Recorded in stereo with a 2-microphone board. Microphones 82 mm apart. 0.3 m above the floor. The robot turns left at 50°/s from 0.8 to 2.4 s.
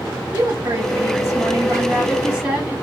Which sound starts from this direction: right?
A woman speaking, at 0.3 s.